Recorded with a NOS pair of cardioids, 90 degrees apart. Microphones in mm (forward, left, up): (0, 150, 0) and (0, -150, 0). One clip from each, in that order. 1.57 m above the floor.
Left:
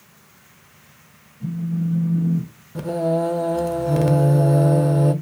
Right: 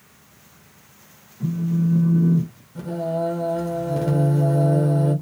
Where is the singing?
50° left, 0.8 m.